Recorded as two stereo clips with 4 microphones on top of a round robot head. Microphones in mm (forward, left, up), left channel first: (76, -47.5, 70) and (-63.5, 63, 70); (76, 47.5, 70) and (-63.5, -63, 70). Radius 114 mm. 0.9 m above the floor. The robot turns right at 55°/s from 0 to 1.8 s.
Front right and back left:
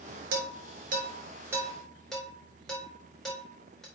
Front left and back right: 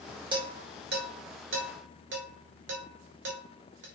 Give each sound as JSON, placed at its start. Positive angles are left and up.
{"t": 0.3, "sound": "dishes clattering", "azimuth_deg": 155, "distance_m": 2.5}